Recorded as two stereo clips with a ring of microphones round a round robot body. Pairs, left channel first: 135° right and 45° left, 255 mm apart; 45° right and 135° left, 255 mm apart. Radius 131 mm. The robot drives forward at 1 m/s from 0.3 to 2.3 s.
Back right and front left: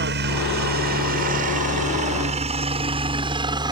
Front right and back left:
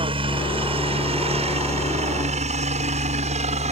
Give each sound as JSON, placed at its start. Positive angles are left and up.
{"t": 0.0, "sound": "a helicopter", "azimuth_deg": 75}